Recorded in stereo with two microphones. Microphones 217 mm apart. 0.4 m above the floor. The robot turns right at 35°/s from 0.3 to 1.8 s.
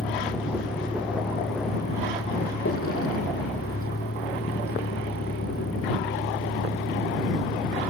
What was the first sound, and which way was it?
A vehicle, 40° left.